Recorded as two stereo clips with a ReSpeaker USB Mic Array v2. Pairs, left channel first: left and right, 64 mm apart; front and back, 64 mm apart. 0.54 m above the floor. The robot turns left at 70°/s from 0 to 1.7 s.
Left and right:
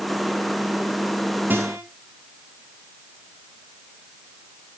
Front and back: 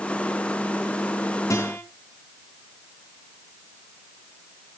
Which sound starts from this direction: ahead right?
A guitar, at 1.5 s.